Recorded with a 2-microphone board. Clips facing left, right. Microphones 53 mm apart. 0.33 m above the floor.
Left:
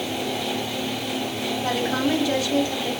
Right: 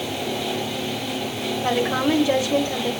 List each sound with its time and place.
1.6 s a woman speaking: 20° right (ahead or behind), 1.3 m